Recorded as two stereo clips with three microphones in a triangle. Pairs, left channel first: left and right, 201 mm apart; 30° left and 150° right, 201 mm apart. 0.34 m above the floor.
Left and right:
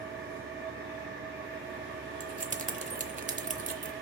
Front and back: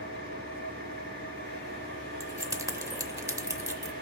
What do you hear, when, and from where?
0.0 s an engine running: 105° right, 1.9 m
2.2 s keys jangling: 85° right, 0.7 m